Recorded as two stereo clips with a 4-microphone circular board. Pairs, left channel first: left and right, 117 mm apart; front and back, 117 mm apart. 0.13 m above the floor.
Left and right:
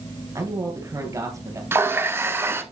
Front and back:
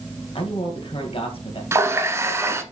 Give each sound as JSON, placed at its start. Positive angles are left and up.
{"t": 0.3, "sound": "a man speaking", "azimuth_deg": -30, "distance_m": 2.5}
{"t": 1.7, "sound": "a running tap", "azimuth_deg": -140, "distance_m": 0.9}